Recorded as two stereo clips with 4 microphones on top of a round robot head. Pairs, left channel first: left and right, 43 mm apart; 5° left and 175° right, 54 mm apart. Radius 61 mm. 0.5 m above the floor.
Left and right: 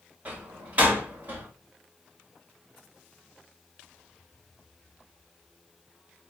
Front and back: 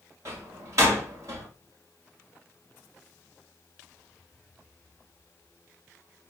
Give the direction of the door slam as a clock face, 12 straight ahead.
5 o'clock.